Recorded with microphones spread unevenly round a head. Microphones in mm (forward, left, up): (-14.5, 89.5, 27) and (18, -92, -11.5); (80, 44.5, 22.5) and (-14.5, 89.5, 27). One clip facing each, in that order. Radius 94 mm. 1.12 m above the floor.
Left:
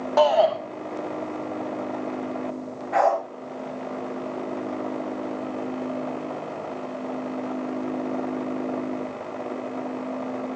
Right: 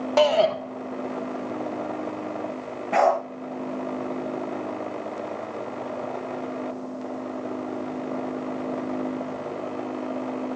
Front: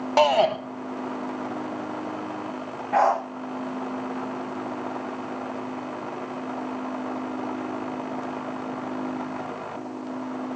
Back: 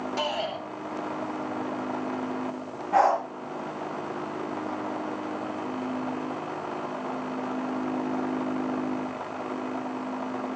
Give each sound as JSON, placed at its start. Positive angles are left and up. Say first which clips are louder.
{"t": 0.2, "sound": "a shout", "louder": "left 1 dB, front 14 dB", "azimuth_deg": -35, "distance_m": 1.6}
{"t": 2.9, "sound": "a dog barking", "louder": "right 1 dB, front 1 dB", "azimuth_deg": -135, "distance_m": 6.0}